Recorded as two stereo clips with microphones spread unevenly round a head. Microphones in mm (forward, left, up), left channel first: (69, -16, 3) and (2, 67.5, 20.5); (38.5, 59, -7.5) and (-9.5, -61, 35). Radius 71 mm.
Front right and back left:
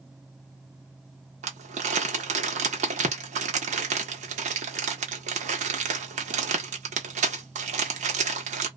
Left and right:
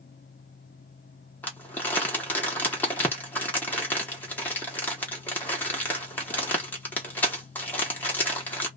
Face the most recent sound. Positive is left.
turn(degrees=135)